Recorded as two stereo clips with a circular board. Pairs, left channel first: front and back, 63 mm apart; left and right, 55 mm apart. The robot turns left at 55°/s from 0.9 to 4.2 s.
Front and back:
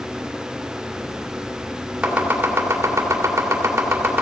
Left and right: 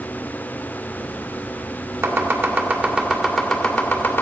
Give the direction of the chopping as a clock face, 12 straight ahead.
4 o'clock.